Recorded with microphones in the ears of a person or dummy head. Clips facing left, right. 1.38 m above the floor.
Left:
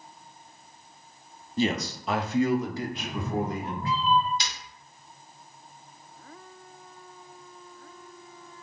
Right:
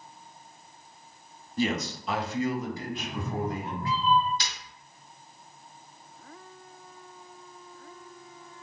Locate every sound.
1.6 s a man speaking: 15° left (ahead or behind), 0.6 m; by 4.0 s 60° left (ahead or behind), 1.8 m
3.0 s a cat meowing: 20° left (ahead or behind), 0.7 m
4.4 s breaking glass: 20° left (ahead or behind), 2 m